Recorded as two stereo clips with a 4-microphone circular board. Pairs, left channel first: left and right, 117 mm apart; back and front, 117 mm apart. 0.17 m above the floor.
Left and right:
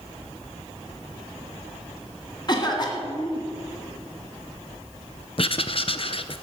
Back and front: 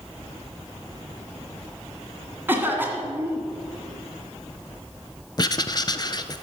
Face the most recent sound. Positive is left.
turn(degrees=130)